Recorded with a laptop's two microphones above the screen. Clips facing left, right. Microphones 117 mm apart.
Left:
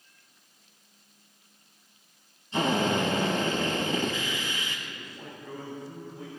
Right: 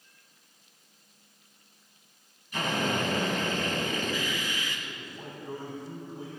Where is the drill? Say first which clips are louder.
Left 4 dB; 25° left (ahead or behind), 4 m.